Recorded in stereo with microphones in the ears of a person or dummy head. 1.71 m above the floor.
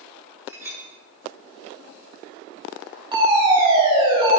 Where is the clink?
20° right (ahead or behind), 1.8 m.